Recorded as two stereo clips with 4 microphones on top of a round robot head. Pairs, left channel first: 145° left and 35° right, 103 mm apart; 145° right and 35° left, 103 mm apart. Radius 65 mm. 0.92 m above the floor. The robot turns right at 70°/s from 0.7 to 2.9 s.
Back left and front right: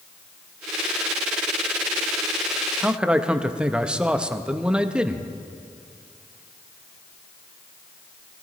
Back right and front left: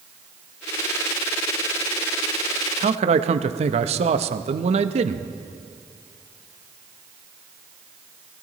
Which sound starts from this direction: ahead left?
A man speaking, at 2.8 s.